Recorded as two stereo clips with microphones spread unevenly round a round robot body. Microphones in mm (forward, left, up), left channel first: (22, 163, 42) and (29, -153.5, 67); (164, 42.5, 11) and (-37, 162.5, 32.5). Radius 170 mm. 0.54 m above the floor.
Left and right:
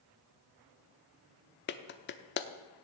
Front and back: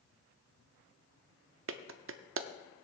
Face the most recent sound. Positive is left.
turn(degrees=135)